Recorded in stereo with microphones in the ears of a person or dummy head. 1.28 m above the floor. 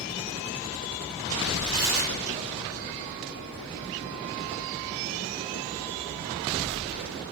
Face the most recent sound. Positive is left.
turn(degrees=-75)  # may be behind; listen again after turning